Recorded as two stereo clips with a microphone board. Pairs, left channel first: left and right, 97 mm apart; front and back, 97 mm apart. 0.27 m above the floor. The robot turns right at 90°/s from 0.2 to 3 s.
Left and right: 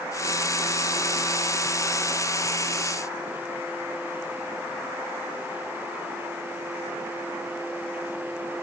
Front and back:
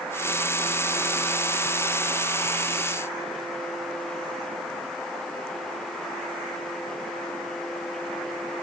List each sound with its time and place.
Only background noise.